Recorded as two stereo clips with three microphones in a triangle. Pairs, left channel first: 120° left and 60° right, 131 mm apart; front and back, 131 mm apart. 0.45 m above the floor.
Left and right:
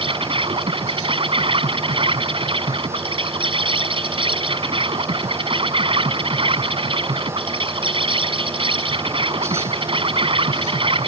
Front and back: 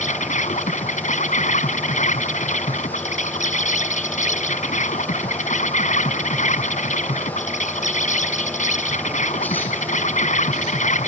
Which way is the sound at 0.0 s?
15° right.